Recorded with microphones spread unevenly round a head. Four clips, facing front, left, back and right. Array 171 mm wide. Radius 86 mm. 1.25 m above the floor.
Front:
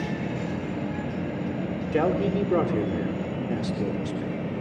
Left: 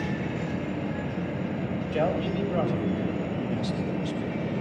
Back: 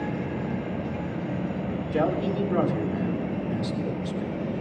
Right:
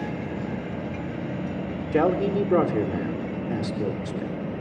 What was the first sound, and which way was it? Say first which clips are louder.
A man speaking: right 6 dB, front 2 dB; 65° right.